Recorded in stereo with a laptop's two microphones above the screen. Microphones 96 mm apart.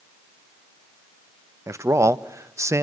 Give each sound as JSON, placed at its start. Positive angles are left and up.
{"t": 1.7, "sound": "a man speaking", "side_deg": -30, "distance_m": 0.5}